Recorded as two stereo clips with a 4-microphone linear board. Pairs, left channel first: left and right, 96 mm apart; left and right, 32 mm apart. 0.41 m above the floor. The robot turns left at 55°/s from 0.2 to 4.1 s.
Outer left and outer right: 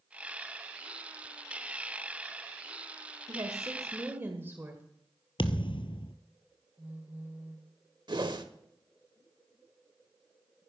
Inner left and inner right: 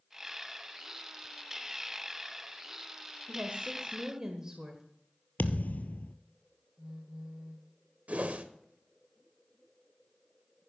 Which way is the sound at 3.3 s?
105° right.